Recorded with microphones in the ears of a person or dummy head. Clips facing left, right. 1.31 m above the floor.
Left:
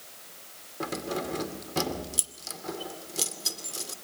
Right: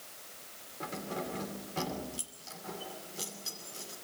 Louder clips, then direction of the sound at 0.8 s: Left 6 dB; 75° left (ahead or behind).